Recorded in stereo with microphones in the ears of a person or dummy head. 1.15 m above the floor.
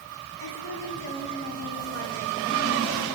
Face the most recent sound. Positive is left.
turn(degrees=55)  # may be behind; listen again after turning